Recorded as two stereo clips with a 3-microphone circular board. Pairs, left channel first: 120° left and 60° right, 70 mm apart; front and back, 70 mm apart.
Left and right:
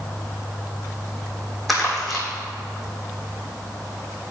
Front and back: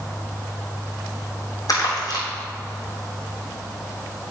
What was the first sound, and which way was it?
Crumpling, 30° left.